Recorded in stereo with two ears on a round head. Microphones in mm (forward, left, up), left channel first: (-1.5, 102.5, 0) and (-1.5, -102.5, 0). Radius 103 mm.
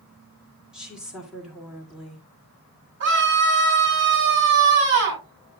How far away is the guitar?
No guitar in this recording.